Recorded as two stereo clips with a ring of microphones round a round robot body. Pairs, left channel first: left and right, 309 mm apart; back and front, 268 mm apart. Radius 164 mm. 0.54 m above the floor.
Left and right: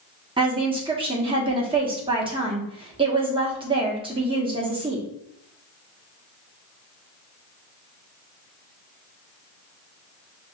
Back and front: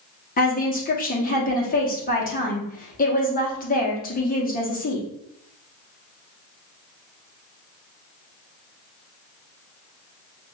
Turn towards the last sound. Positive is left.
turn(degrees=-150)